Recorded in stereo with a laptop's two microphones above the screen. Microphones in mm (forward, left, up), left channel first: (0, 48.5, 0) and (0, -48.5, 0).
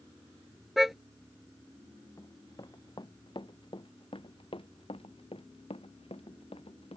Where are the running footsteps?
35° left (ahead or behind); by 7.0 s 85° left.